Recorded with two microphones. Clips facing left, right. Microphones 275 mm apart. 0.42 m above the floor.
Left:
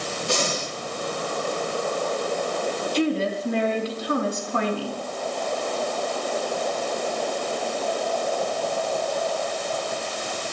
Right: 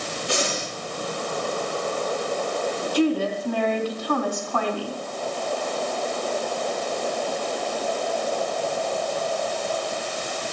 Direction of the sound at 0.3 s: 50° left (ahead or behind).